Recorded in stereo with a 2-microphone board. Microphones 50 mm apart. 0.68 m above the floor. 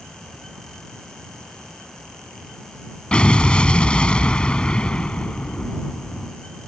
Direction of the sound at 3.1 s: 20° left (ahead or behind).